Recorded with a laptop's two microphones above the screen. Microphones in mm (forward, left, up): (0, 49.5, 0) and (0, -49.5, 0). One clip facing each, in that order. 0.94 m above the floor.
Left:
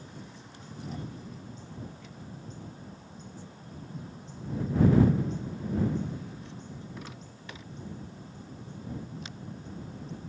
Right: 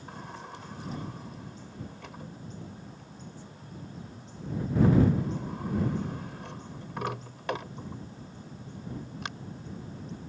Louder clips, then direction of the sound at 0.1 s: Right 5 dB; 70° right (ahead or behind).